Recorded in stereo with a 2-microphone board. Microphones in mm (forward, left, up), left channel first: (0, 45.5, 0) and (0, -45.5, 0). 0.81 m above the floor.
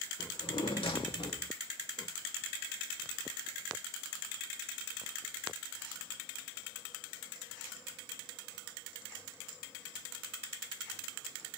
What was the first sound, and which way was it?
A drawer, 85° left.